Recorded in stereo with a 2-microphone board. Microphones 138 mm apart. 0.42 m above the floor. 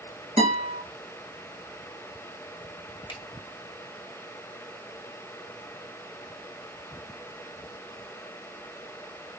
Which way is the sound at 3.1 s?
35° left (ahead or behind).